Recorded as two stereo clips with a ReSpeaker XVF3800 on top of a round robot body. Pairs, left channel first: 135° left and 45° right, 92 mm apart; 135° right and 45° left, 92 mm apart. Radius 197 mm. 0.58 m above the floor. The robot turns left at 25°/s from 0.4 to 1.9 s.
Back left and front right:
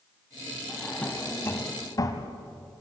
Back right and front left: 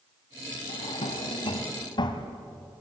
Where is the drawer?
140° right, 1.8 m; by 2.3 s 175° right, 1.8 m.